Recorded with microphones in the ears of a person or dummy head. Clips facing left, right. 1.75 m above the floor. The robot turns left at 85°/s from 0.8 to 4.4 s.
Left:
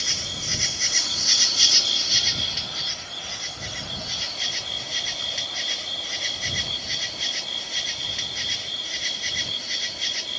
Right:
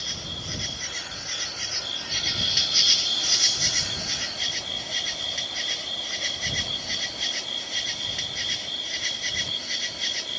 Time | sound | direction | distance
0.0 | an insect | 130° left | ?